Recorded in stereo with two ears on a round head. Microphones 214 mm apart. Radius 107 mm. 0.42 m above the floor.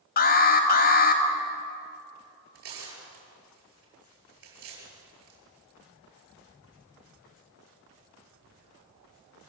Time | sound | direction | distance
0.2 | an alarm | 40° left (ahead or behind) | 2.5 m
2.5 | tearing paper | 60° right (ahead or behind) | 9.5 m